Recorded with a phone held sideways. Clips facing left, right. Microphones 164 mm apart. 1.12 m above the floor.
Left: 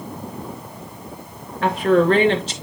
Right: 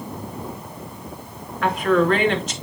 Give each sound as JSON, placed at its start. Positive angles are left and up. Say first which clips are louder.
{"t": 1.6, "sound": "a woman speaking", "louder": "left 2 dB", "side_deg": 30, "distance_m": 2.5}